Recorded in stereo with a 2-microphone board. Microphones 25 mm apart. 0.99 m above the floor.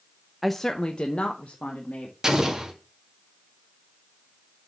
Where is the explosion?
25° right (ahead or behind), 2 m.